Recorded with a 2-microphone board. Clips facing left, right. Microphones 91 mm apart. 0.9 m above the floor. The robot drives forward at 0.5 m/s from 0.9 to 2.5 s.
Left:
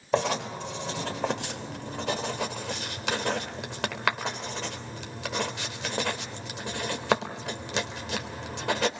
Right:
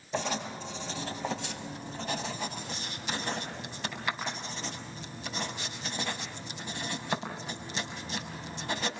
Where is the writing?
75° left (ahead or behind), 3.5 m; by 8.9 s 80° left, 3.5 m.